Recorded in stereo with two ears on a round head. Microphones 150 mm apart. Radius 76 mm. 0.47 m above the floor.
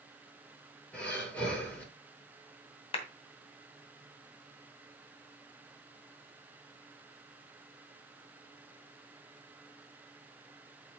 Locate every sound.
0.9 s breathing: 10° left (ahead or behind), 5.5 m
2.9 s a clap: 35° left (ahead or behind), 2.5 m